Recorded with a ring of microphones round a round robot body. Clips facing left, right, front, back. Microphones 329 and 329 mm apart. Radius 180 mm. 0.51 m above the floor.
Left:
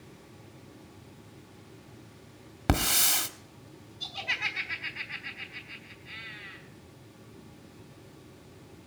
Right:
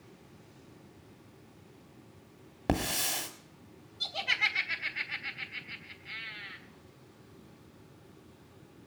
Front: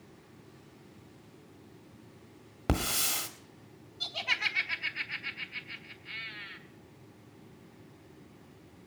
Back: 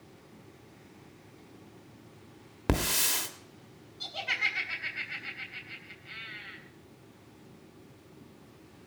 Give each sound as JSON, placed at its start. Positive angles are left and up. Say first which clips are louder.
{"t": 2.7, "sound": "a hiss", "louder": "left 1 dB, back 2 dB", "azimuth_deg": 110, "distance_m": 1.2}
{"t": 4.0, "sound": "laughter", "louder": "right 2 dB, back 1 dB", "azimuth_deg": -80, "distance_m": 3.0}